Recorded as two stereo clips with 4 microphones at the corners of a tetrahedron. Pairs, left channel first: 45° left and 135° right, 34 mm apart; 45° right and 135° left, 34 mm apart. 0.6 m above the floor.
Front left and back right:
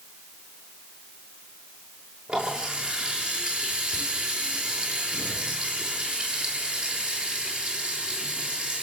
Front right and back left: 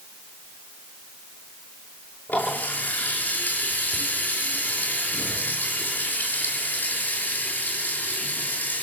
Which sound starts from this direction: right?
A running tap, at 2.3 s.